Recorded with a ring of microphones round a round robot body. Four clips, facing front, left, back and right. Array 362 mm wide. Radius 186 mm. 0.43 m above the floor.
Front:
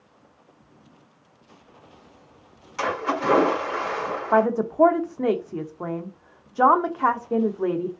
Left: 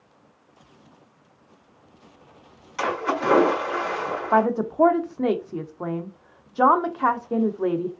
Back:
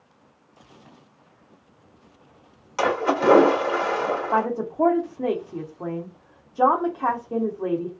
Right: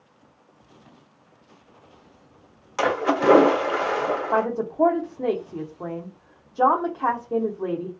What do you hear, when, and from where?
2.8 s a splash: 135° right, 1.3 m
4.3 s a woman speaking: 50° left, 0.7 m